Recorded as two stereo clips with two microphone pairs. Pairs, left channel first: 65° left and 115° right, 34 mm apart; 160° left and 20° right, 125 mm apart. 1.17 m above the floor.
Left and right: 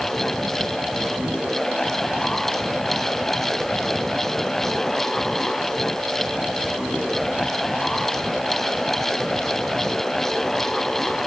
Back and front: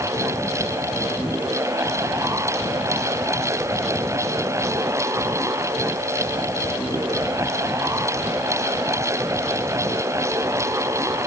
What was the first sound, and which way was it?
Only background noise.